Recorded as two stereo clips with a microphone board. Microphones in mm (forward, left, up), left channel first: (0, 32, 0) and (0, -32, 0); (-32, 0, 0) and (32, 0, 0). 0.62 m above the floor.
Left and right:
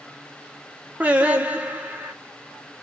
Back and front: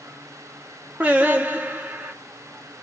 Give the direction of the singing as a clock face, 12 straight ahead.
1 o'clock.